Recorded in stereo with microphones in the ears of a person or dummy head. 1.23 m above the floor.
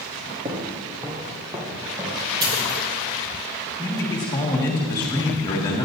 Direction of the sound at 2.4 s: 30° right (ahead or behind).